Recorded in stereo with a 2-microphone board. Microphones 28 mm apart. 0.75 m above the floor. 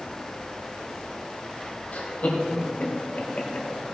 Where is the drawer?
I don't hear a drawer.